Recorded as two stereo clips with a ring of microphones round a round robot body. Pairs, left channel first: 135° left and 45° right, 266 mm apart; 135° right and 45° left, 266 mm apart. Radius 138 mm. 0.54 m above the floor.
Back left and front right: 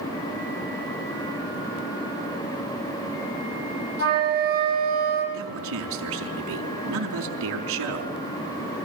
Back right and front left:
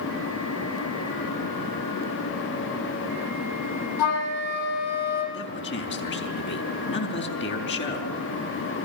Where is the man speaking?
85° right, 5 m.